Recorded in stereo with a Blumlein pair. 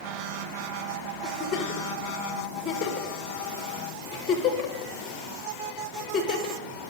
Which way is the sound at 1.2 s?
35° left.